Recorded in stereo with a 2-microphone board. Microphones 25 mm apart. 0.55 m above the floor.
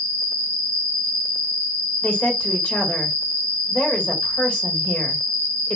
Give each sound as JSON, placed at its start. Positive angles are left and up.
{"t": 0.0, "sound": "an insect", "side_deg": 60, "distance_m": 1.8}
{"t": 2.0, "sound": "a woman speaking", "side_deg": 60, "distance_m": 1.8}